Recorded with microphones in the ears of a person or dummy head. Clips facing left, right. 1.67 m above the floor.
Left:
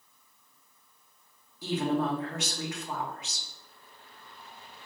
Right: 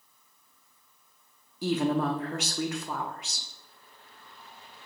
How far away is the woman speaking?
About 0.6 m.